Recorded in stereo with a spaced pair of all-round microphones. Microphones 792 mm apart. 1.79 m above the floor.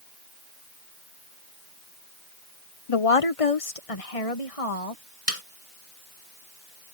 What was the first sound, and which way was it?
A woman speaking, 40° left (ahead or behind).